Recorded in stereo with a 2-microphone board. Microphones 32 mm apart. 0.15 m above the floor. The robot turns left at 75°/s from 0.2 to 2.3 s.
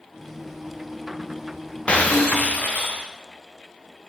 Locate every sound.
1.9 s breaking glass: 140° left, 4.5 m; by 3.1 s 105° left, 4.5 m